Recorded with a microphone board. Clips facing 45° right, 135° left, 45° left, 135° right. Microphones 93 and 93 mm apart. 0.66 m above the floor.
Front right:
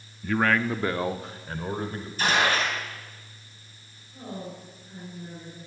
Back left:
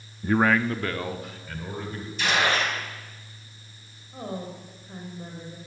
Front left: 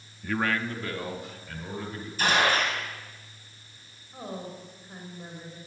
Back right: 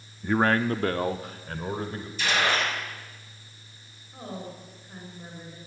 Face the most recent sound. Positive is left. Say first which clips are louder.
# back left 3 dB, even
turn(degrees=125)